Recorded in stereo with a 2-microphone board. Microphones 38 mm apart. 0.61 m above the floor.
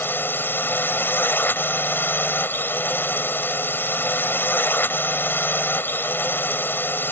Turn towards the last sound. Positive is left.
turn(degrees=65)  # may be behind; listen again after turning